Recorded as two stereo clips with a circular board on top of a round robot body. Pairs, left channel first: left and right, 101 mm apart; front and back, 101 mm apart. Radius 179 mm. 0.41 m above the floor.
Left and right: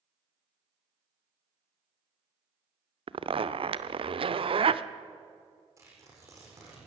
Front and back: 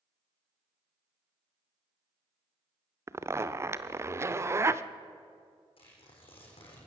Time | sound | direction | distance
3.1 | a zipper | 120° right | 0.8 m
5.8 | tearing paper | 30° right | 7.5 m